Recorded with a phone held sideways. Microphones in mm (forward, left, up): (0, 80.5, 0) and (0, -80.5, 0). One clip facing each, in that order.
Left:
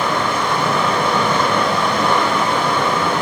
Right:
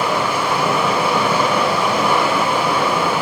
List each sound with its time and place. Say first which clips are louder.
0.0 s running water: even; 10° right (ahead or behind), 1.2 m